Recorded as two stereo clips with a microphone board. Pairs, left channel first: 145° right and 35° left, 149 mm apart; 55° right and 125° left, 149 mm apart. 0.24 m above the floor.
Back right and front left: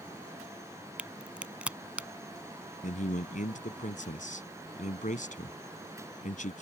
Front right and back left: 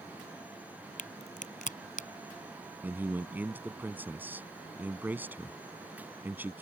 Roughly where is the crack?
Ahead right.